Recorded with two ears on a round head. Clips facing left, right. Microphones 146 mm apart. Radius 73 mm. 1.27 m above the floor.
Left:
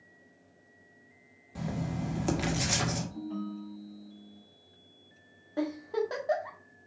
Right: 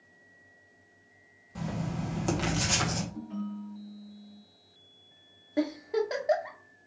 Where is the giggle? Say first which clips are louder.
Right 2 dB; 20° right (ahead or behind), 0.9 m.